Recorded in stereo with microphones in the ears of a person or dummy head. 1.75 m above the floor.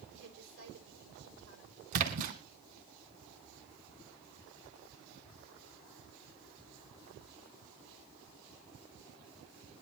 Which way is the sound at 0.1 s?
65° right (ahead or behind).